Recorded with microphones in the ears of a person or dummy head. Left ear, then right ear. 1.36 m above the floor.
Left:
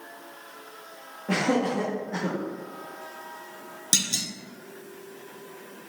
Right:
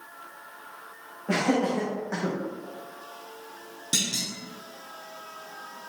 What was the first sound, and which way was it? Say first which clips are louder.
Laughter: even; 5° right (ahead or behind).